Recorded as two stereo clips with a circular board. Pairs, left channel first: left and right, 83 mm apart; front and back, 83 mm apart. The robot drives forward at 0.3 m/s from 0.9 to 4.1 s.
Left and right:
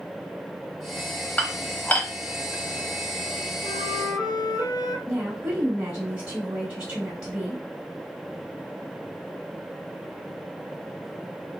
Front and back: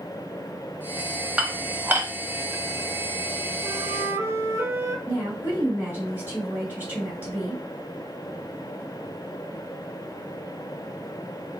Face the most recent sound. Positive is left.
turn(degrees=-155)